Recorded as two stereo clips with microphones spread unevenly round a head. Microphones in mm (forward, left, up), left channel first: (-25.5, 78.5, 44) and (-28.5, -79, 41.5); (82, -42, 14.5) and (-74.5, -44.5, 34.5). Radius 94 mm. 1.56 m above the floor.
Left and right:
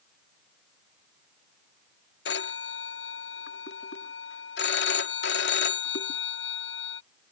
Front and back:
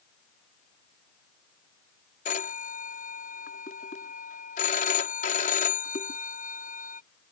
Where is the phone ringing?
55° left.